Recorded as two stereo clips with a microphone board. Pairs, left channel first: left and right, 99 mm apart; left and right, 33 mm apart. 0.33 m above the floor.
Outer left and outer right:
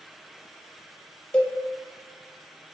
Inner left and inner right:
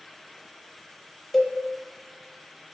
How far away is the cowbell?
About 0.8 m.